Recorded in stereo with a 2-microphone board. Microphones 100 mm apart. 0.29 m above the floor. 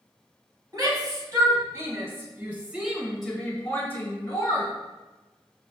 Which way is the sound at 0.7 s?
40° right (ahead or behind).